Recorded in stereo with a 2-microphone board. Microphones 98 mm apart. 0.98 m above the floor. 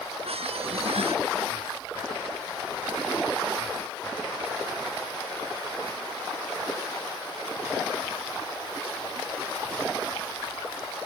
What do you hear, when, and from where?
0.2 s a squeak: 85° right